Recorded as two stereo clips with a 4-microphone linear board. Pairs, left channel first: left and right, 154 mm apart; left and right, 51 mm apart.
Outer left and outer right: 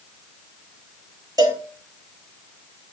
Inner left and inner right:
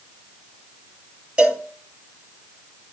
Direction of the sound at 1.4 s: 25° right (ahead or behind).